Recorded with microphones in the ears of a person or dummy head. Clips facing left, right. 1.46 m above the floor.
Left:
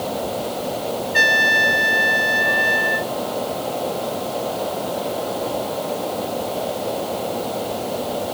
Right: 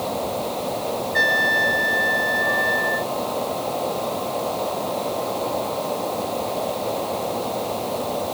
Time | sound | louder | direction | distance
0.0 | a fan | left 1 dB | 10° left (ahead or behind) | ?
1.1 | a trumpet | left 1 dB | 45° left (ahead or behind) | ?